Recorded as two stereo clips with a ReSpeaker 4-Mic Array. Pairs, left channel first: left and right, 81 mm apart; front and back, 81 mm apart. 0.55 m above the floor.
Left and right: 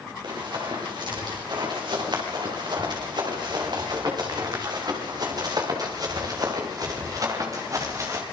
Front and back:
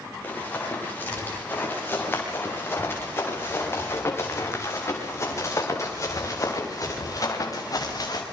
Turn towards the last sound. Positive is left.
turn(degrees=-40)